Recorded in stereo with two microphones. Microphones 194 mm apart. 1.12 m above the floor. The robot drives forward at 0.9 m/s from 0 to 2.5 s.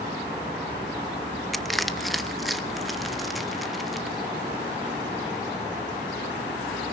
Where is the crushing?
Centre (ahead or behind), 0.6 m.